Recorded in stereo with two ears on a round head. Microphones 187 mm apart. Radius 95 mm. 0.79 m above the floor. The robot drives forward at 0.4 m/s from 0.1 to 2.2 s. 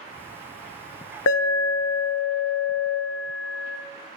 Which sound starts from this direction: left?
An alarm, at 1.3 s.